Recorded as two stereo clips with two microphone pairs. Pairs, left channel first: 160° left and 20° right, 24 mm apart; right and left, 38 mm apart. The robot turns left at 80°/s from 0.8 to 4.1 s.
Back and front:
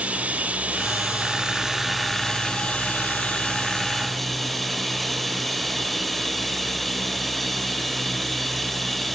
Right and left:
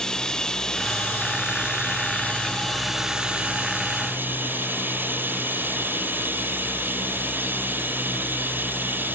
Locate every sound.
0.0 s running water: 20° right, 2.5 m; by 9.2 s 75° left, 2.5 m